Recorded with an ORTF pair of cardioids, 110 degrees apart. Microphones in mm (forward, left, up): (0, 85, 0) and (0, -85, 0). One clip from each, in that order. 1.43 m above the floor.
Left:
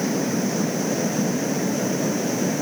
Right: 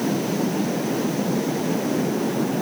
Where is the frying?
I don't hear frying.